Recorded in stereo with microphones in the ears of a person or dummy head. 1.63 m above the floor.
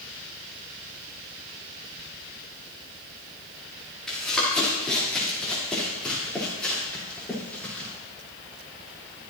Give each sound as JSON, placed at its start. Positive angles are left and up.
{"t": 4.1, "sound": "running footsteps", "side_deg": 0, "distance_m": 5.5}